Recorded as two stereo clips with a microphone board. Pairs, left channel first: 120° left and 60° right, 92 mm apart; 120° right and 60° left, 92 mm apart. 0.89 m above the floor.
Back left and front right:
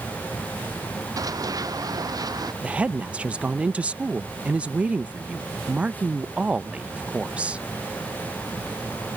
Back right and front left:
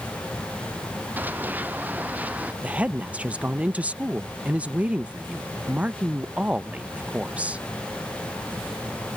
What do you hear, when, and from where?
1.2 s running footsteps: 10° right; by 2.5 s 15° right
2.6 s a woman speaking: straight ahead